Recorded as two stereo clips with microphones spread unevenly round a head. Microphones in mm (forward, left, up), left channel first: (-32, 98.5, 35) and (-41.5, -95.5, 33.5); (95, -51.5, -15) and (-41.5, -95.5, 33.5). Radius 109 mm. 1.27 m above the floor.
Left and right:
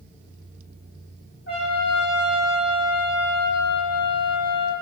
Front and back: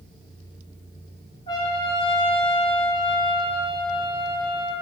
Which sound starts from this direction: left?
A trumpet, at 1.5 s.